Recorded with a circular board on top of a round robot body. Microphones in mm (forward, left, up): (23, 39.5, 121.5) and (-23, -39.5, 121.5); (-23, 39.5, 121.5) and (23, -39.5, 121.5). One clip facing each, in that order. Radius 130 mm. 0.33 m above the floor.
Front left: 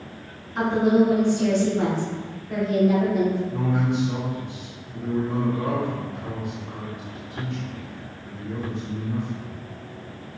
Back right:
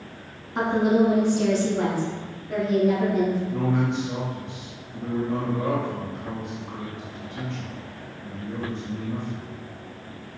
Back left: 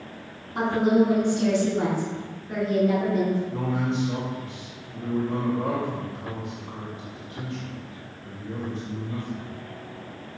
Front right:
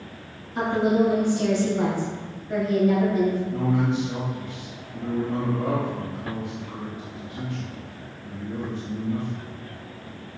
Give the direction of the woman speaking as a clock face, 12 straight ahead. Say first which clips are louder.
Front left 1 dB, back left 1 dB; 6 o'clock.